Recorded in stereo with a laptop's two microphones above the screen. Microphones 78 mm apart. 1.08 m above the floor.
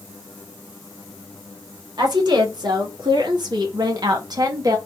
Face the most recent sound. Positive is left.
turn(degrees=-55)  # may be behind; listen again after turning